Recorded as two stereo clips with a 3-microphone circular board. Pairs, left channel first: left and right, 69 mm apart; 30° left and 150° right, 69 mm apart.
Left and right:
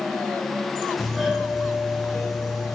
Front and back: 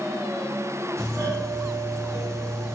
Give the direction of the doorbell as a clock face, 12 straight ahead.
6 o'clock.